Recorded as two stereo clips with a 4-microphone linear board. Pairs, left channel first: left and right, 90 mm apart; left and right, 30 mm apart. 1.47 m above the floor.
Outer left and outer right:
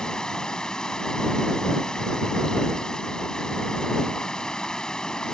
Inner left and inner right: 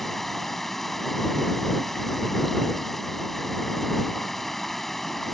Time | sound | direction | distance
0.0 | running water | 10° left (ahead or behind) | ?